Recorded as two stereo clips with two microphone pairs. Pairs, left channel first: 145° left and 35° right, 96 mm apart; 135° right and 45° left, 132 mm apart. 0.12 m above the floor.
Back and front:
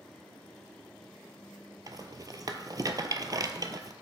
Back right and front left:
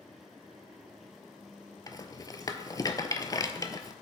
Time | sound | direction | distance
1.9 | a rattle | 75° right | 0.5 m